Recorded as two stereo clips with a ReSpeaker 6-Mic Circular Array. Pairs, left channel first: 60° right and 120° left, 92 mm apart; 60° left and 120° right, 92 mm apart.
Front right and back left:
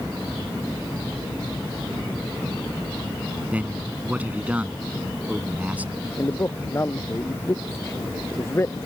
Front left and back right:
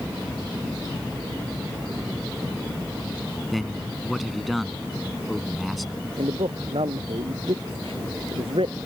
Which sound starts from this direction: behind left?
A man speaking, at 3.5 s.